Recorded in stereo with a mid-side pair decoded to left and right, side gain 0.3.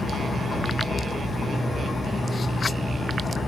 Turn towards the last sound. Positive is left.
turn(degrees=70)